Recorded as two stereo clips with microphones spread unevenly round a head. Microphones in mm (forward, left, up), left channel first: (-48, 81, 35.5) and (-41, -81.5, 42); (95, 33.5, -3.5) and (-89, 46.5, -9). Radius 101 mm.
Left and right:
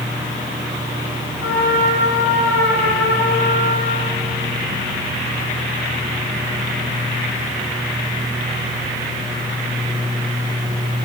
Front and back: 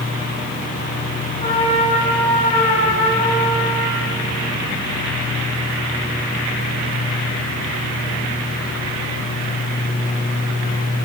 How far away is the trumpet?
About 6 m.